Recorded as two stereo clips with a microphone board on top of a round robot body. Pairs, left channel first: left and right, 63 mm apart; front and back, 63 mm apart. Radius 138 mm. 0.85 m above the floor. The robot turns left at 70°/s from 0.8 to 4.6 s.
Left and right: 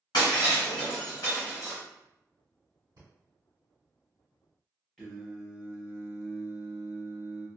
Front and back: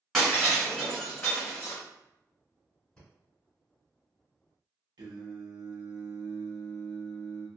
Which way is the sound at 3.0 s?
80° right.